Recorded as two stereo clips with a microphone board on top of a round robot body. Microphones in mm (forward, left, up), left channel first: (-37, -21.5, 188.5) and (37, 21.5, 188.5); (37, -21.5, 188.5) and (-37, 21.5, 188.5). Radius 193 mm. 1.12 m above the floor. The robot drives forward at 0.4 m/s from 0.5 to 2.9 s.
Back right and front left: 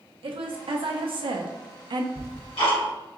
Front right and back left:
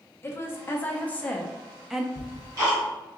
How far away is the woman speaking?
About 1.0 m.